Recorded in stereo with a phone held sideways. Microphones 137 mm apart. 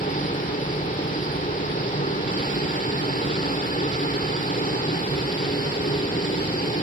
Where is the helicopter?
70° left (ahead or behind).